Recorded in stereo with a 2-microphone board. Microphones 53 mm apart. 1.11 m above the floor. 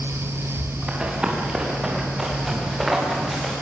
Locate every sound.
0.9 s running footsteps: 20° right (ahead or behind), 6.5 m; by 3.5 s centre (ahead or behind), 9.5 m